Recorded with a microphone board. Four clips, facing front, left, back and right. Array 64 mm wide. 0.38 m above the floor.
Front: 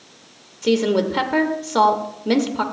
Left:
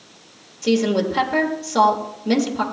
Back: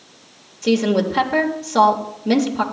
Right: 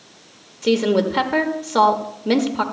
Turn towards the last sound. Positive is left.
turn(degrees=-65)